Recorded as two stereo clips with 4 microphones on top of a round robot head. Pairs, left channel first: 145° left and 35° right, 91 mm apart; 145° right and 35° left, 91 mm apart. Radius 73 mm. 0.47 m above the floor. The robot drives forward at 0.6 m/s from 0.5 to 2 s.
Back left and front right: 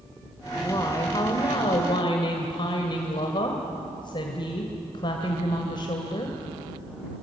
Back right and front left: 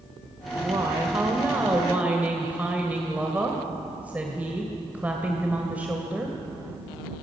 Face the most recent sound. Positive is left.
turn(degrees=110)